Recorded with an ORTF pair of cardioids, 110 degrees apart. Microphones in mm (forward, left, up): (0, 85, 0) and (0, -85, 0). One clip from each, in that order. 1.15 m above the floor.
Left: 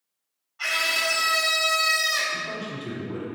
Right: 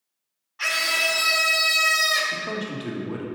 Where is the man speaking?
65° right, 1.7 m.